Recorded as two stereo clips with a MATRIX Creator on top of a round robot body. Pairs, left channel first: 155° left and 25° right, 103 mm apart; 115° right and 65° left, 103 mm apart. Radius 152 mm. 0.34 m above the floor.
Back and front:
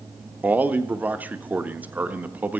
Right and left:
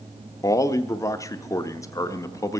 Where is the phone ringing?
No phone ringing in this recording.